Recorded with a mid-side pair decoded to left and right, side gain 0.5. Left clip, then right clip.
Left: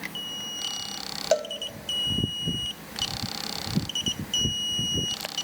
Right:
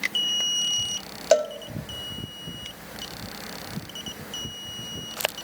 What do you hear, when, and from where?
1.3 s a cowbell: 30° right, 0.7 m